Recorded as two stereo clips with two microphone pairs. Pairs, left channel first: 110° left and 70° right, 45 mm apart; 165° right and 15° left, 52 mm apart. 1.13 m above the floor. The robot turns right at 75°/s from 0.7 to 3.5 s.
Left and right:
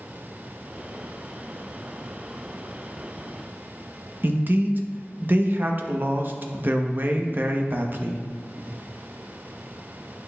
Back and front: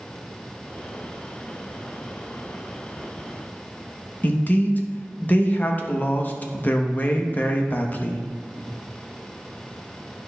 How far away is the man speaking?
About 0.8 m.